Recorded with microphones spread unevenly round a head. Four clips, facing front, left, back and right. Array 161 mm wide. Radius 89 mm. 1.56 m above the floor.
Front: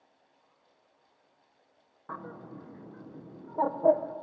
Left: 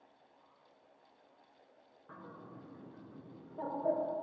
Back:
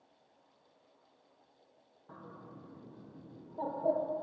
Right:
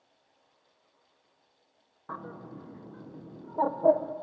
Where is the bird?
45° right, 1.2 m.